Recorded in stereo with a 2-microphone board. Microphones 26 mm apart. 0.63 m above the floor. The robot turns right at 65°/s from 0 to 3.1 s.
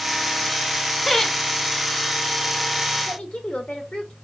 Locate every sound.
1.1 s laughter: centre (ahead or behind), 1.1 m; by 1.4 s 15° left (ahead or behind), 1.1 m
3.1 s a woman speaking: 50° left (ahead or behind), 1.5 m